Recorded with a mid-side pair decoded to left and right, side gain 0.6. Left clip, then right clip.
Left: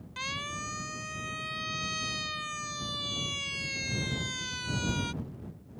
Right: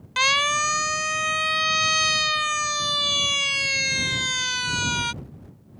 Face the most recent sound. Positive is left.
turn(degrees=-50)